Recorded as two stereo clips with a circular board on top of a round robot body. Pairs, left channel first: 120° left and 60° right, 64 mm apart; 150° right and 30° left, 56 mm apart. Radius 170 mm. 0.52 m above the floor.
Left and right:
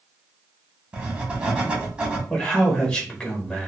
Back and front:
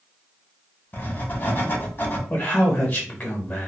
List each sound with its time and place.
0.9 s writing: 125° right, 1.2 m
2.3 s a man speaking: straight behind, 1.2 m